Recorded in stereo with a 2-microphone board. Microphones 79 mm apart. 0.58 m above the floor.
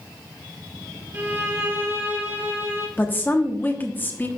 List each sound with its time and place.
1.1 s a violin: 25° right (ahead or behind), 1.9 m
3.0 s a woman speaking: 25° left (ahead or behind), 1.0 m